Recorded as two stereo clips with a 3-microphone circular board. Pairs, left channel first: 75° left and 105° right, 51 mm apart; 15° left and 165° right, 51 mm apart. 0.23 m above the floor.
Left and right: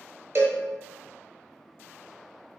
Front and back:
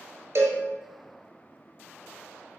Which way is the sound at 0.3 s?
140° right.